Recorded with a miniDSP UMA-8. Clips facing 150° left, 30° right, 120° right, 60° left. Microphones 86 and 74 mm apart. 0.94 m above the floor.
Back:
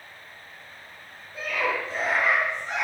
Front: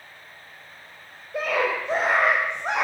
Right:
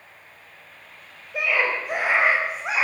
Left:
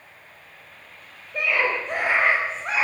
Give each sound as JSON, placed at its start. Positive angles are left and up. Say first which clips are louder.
{"t": 1.3, "sound": "a scream", "louder": "front 4 dB, even", "azimuth_deg": -40, "distance_m": 5.5}